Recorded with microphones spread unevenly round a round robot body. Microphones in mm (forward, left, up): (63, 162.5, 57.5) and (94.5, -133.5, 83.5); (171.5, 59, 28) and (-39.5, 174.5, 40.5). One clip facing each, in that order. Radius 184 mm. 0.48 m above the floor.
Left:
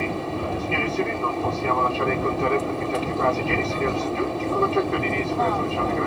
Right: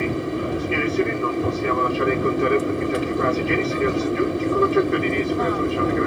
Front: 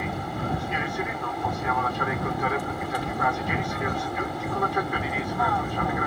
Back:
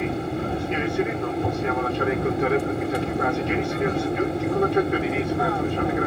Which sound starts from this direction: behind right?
An aircraft, at 0.0 s.